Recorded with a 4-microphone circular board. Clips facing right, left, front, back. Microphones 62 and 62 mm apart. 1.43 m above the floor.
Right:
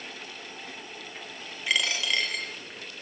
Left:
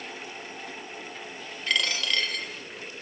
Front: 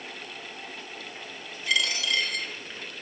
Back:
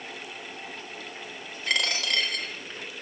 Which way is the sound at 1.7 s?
165° right.